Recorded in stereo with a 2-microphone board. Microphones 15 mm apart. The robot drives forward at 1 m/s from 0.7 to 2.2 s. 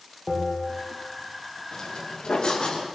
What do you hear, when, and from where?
0.3 s a bell: 5° right (ahead or behind), 9.5 m
1.7 s footsteps: 55° left (ahead or behind), 8.5 m; by 2.9 s 60° left (ahead or behind), 8.5 m